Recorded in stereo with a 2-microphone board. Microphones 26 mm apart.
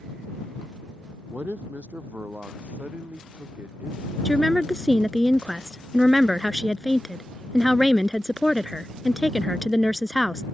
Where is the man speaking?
55° right (ahead or behind); by 5.2 s 50° right (ahead or behind).